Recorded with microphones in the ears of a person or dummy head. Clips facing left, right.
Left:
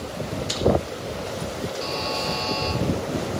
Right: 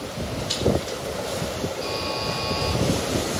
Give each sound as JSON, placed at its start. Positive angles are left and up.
{"t": 0.5, "sound": "chewing", "side_deg": 60, "distance_m": 2.5}
{"t": 1.8, "sound": "a buzzer", "side_deg": 75, "distance_m": 6.0}